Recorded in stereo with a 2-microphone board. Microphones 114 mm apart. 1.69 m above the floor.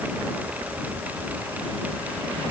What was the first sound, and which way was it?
Only background noise.